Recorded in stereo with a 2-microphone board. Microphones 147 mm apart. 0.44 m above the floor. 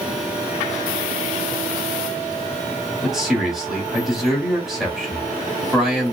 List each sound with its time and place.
3.0 s a man speaking: 5° right (ahead or behind), 1.4 m